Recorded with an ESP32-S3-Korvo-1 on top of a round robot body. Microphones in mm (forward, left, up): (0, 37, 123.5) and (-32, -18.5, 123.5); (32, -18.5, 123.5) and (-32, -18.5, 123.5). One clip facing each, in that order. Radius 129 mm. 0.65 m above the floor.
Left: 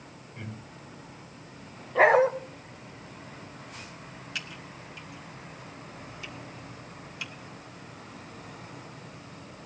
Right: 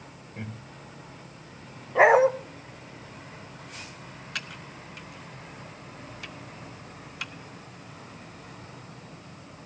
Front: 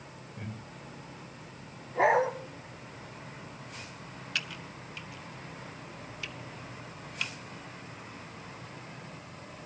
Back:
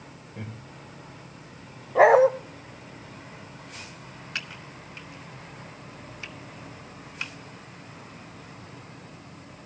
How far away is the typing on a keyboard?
About 1.4 m.